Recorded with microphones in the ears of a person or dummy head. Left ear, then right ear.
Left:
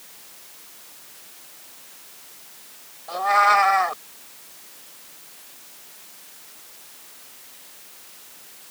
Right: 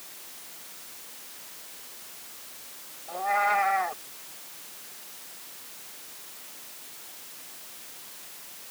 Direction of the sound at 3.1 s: 55° left (ahead or behind).